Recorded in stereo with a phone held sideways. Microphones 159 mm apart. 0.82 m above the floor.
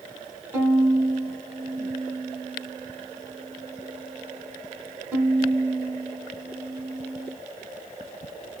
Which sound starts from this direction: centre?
A violin, at 0.5 s.